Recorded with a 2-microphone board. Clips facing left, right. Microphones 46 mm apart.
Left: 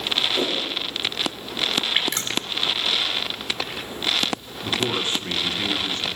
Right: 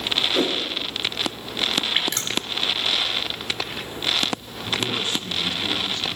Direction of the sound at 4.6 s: 35° left (ahead or behind).